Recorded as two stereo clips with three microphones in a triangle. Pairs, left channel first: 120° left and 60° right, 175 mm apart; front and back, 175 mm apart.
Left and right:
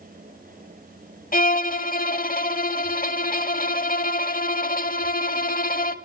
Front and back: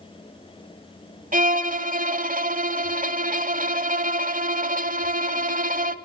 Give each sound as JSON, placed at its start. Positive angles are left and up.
{"t": 1.3, "sound": "a violin", "azimuth_deg": 150, "distance_m": 0.9}